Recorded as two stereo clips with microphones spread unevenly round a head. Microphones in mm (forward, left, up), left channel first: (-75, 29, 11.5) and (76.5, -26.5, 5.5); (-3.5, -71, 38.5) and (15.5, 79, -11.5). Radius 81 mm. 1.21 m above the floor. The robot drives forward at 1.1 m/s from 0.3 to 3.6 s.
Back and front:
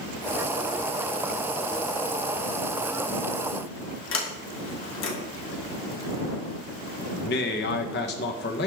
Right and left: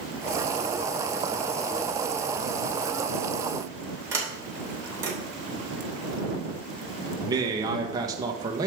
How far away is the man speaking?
About 1.3 m.